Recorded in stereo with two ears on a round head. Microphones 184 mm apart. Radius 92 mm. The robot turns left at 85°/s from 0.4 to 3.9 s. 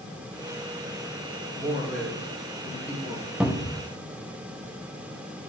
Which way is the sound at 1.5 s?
5° right.